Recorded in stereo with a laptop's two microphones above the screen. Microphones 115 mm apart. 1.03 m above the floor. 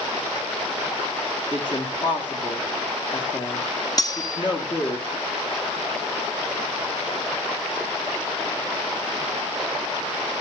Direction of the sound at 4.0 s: 35° left (ahead or behind).